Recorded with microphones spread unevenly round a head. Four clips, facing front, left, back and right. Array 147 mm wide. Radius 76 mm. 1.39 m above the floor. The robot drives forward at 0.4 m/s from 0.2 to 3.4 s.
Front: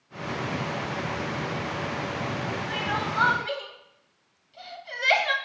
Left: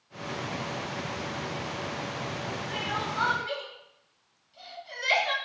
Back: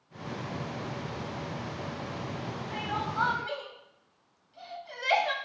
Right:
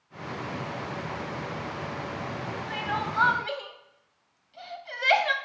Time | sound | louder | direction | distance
2.7 | crying | right 4 dB, front 3 dB | 25° right | 1.0 m